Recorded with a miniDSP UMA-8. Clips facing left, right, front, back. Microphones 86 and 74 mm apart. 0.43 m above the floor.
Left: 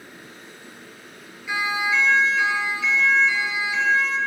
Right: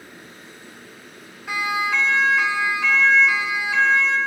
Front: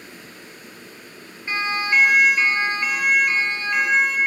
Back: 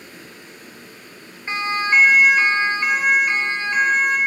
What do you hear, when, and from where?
1.5 s a siren: 115° right, 5.5 m; by 4.2 s 110° right, 7 m